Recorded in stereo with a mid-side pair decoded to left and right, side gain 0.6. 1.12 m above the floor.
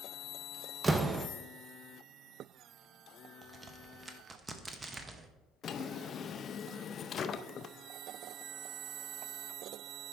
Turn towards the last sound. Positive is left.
turn(degrees=40)